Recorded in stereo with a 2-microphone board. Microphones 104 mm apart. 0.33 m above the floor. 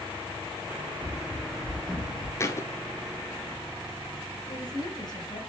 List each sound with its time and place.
1.0 s running footsteps: 15° right (ahead or behind), 1.0 m; by 2.3 s 15° left (ahead or behind), 2 m
2.4 s a thud: 30° left (ahead or behind), 0.8 m
4.5 s a woman speaking: 45° left (ahead or behind), 1.8 m